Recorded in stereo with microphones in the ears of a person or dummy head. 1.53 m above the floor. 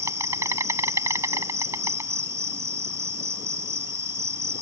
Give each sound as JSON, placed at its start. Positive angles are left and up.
{"t": 0.0, "sound": "an insect", "side_deg": -20}